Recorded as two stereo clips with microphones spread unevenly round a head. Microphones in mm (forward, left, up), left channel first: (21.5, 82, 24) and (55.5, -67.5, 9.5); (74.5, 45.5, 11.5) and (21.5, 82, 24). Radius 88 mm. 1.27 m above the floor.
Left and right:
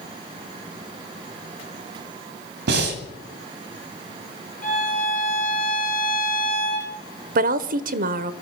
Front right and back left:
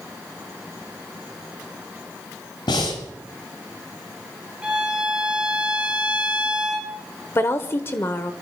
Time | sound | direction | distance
2.7 | breathing | 60° right | 2.5 m
4.6 | a violin | 70° left | 3 m
7.3 | a woman speaking | 85° right | 0.9 m